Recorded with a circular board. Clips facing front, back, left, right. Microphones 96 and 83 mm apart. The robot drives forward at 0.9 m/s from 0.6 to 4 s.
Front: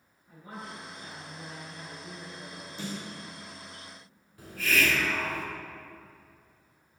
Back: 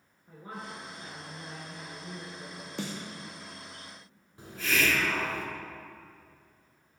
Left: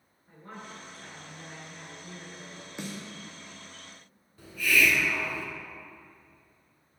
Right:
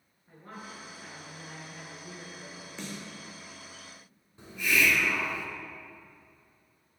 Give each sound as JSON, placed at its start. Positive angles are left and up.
{"t": 0.3, "sound": "a woman speaking", "azimuth_deg": -170, "distance_m": 2.5}
{"t": 2.8, "sound": "a snare drum", "azimuth_deg": 165, "distance_m": 1.6}
{"t": 4.4, "sound": "a hiss", "azimuth_deg": -140, "distance_m": 1.0}